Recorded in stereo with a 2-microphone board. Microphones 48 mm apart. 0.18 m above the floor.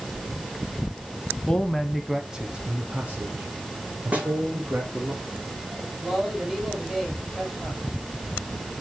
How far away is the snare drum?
About 3.5 m.